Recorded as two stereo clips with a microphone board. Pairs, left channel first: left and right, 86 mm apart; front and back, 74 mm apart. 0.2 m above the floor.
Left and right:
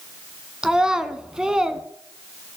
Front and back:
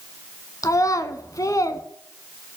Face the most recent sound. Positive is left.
turn(degrees=-10)